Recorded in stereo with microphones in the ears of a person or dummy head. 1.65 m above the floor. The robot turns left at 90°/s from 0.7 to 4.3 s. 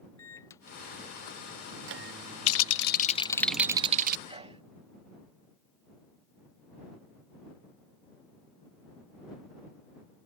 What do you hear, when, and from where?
0.2 s a microwave: 20° left; by 3.5 s 135° left
2.5 s a rattle: 100° left; by 4.2 s 55° right
4.3 s a sneeze: 35° right (ahead or behind); by 4.6 s 30° right (ahead or behind)